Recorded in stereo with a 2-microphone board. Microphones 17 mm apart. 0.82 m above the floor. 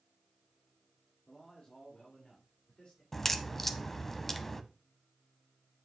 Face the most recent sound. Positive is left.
turn(degrees=15)  # may be behind; listen again after turning